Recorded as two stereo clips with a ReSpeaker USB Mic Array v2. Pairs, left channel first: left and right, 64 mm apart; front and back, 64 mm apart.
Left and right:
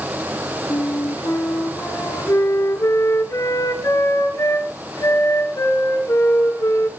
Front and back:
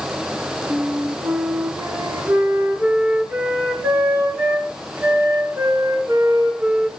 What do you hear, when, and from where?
0.7 s a flute: 125° left, 3.5 m